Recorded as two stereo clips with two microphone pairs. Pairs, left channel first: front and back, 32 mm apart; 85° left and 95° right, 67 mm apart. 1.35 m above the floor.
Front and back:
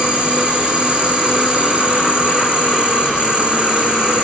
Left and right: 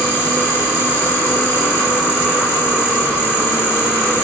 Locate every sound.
0.0 s an insect: 135° left, 1.8 m